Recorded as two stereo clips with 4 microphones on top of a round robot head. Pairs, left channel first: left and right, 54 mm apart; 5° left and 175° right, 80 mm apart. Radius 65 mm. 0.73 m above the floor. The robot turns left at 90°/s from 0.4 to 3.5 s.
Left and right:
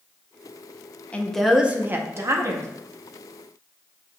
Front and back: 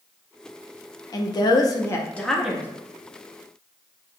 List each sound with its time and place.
1.1 s a woman speaking: 30° left, 0.7 m; by 2.7 s 110° right, 0.7 m